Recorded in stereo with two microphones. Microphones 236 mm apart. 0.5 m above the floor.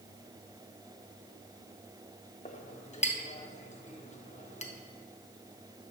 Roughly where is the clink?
Left.